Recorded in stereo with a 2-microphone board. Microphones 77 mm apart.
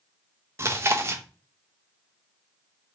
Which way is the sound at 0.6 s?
35° right (ahead or behind).